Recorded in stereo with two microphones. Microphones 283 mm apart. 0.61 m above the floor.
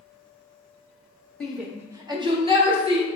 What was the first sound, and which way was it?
A shout, centre (ahead or behind).